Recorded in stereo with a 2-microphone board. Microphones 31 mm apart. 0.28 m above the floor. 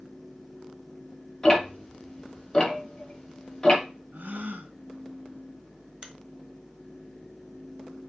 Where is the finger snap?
20° right (ahead or behind), 1.1 m.